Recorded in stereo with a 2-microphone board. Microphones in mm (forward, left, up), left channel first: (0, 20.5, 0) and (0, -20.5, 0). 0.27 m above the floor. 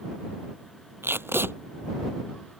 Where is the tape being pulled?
75° right (ahead or behind).